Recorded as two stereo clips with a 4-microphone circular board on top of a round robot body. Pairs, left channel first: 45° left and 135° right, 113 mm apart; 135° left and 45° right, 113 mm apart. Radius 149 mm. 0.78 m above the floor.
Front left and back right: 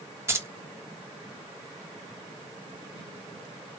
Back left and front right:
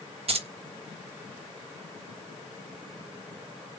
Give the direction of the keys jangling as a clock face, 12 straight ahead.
2 o'clock.